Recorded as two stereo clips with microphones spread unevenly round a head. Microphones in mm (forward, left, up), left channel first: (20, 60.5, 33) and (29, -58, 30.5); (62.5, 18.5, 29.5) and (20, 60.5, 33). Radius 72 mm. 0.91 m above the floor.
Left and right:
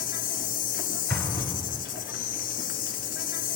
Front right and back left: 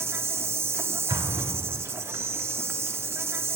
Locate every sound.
0.0 s an insect: 90° left, 1.0 m
1.1 s an explosion: 170° left, 1.6 m